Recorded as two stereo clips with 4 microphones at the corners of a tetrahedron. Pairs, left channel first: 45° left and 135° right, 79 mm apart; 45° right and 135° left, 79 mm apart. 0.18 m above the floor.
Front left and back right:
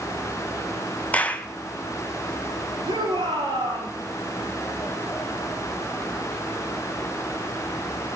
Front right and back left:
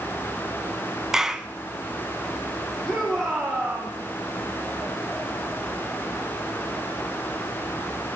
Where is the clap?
65° left, 1.0 m.